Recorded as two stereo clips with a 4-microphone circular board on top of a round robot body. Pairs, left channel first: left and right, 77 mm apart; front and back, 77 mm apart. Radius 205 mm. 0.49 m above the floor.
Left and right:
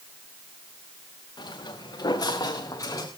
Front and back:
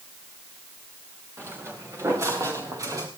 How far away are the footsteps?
About 5 m.